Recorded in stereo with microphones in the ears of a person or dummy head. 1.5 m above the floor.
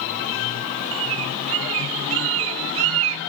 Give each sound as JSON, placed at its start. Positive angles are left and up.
{"t": 0.9, "sound": "a bird", "side_deg": -75}